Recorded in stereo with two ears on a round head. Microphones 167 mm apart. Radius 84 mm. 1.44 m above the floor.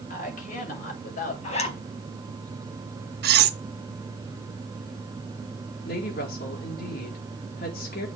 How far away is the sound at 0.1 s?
About 6.5 m.